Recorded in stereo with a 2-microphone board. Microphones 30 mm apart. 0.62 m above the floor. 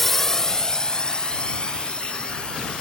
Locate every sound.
0.0 s a drone: 10° left (ahead or behind); by 2.8 s 35° left (ahead or behind)